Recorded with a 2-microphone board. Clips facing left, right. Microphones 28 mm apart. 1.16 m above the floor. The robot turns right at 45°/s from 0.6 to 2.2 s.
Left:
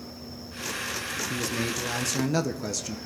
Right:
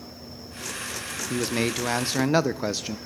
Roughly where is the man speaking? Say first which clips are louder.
Right 6 dB; right.